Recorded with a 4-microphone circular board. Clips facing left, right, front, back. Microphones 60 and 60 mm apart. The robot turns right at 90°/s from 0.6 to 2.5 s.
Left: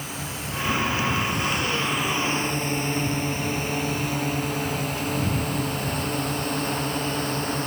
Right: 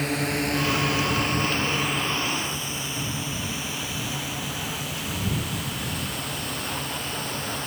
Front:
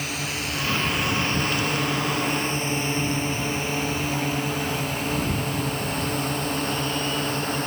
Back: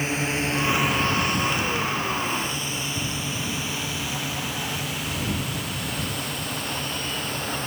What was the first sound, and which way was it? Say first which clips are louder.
A drone: right 8 dB, back 4 dB; 120° right.